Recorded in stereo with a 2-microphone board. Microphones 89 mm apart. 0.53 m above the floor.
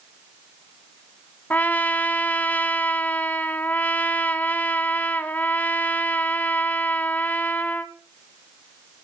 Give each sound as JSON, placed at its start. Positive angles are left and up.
{"t": 1.5, "sound": "a trumpet", "side_deg": 20, "distance_m": 0.7}